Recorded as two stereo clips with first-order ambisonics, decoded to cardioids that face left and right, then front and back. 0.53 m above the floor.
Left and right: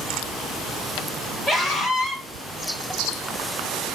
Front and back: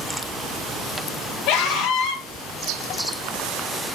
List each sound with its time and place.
1.5 s a scream: 5° right, 1.7 m